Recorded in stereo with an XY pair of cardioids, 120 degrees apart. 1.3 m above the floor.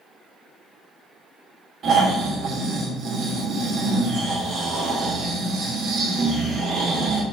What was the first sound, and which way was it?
Snoring, 55° right.